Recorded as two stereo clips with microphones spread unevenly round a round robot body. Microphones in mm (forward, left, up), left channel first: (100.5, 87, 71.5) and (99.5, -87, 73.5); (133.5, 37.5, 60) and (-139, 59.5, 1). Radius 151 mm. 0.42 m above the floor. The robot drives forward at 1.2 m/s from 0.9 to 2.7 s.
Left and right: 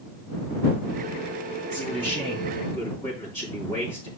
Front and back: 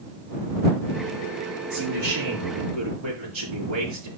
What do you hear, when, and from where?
1.7 s a man speaking: 155° left, 7 m; by 4.1 s 160° left, 8 m